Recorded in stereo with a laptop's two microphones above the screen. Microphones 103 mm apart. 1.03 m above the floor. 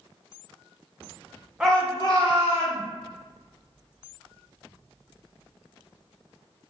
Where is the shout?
10° right (ahead or behind), 0.5 m; by 2.8 s 70° left (ahead or behind), 1.5 m.